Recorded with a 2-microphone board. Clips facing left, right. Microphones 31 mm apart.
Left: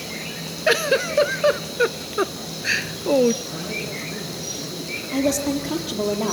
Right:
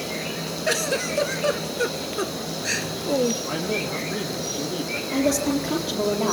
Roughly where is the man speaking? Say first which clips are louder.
Right 3 dB; right.